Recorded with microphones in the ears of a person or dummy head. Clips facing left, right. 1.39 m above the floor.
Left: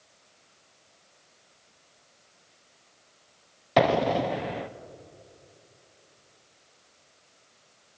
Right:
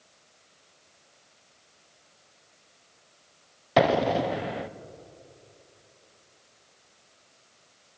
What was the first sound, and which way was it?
An explosion, centre (ahead or behind).